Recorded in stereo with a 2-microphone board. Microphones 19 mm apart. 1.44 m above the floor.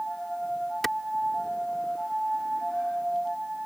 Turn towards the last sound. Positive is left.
turn(degrees=15)  # may be behind; listen again after turning